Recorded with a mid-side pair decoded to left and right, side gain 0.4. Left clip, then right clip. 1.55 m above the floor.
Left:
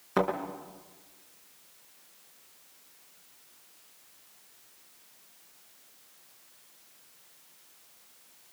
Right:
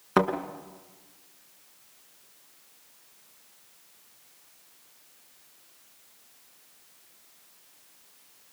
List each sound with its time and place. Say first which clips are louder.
0.2 s a thud: right 4 dB; 60° right, 4.5 m